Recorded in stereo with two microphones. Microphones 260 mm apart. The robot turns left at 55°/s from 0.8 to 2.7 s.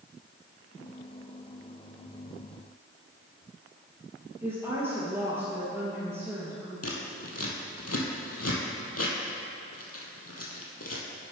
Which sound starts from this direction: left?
Scissors, at 6.8 s.